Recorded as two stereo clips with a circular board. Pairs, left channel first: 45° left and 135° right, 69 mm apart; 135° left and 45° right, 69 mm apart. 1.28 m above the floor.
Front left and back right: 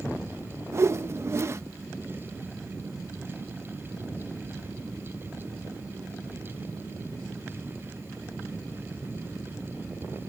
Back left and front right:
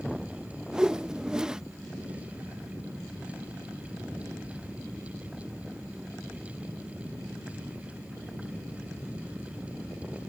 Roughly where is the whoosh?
Behind right.